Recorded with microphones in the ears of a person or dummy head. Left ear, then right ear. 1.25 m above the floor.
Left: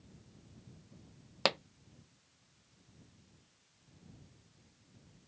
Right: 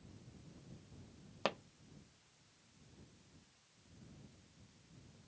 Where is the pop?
35° left (ahead or behind).